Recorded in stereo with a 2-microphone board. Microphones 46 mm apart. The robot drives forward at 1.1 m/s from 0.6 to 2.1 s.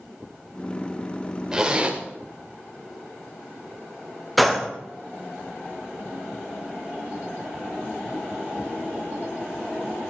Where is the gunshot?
Centre (ahead or behind), 0.9 m.